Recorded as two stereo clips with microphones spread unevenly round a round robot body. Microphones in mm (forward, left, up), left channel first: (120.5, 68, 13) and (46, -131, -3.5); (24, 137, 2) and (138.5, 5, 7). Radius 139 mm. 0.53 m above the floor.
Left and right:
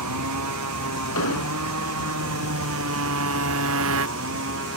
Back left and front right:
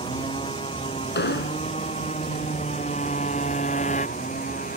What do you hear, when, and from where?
0.0 s a motorcycle: 150° right; by 4.8 s 160° right
1.1 s an explosion: 105° left